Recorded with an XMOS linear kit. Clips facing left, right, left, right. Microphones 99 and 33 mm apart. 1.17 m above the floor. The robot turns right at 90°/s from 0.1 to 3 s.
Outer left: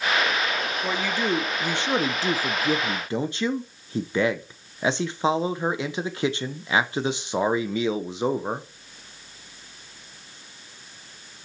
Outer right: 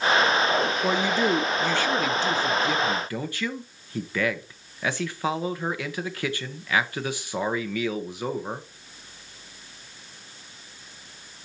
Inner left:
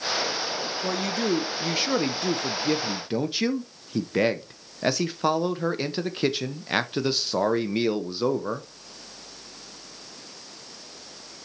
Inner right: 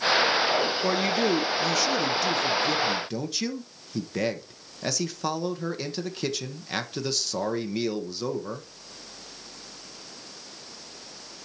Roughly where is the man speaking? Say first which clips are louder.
Even, inner right 2 dB; ahead right.